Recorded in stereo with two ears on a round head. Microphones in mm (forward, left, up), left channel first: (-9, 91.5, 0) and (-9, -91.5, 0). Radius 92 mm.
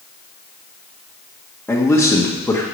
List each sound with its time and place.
1.7 s a man speaking: 10° left (ahead or behind), 1.6 m